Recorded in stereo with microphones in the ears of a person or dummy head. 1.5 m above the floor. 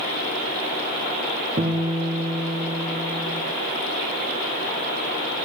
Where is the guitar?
20° right (ahead or behind), 3 m.